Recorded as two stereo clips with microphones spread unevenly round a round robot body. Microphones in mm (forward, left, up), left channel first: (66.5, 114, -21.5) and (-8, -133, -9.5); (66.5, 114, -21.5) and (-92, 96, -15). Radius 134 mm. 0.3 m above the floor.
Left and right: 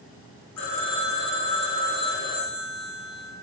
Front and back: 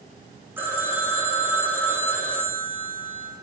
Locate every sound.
0.6 s a phone ringing: 110° left, 9.5 m